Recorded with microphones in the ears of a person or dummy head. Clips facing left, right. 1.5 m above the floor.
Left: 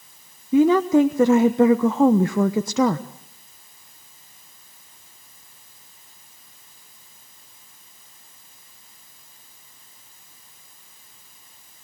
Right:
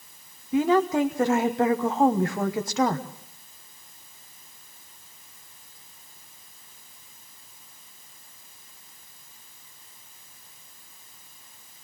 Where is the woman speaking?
75° left (ahead or behind), 1.0 m.